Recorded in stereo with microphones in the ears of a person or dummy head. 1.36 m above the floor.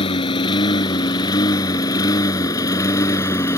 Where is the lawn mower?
30° left (ahead or behind); by 3.6 s 20° left (ahead or behind).